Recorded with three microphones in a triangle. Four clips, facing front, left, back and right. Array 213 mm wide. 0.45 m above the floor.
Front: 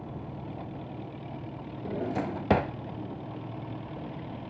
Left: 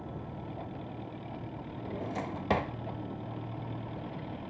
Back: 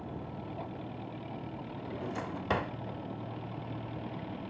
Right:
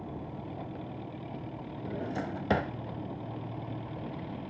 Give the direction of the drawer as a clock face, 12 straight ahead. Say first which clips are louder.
Right 1 dB, front 8 dB; 1 o'clock.